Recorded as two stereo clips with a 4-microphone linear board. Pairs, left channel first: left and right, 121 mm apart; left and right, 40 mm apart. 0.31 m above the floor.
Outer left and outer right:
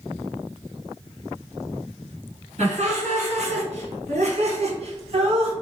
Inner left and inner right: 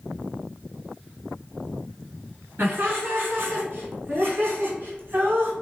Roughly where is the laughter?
Right.